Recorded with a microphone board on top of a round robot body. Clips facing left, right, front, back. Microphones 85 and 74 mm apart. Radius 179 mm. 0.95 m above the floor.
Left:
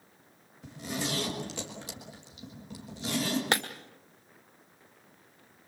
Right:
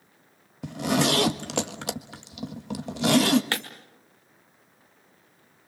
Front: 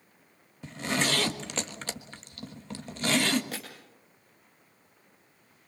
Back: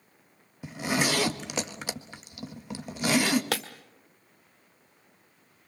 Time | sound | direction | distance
0.6 | a zipper | 100° right | 1.6 m
3.5 | breaking glass | 160° left | 0.9 m